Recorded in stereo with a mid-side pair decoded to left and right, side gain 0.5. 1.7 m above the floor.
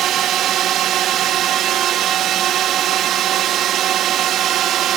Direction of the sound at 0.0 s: 65° right.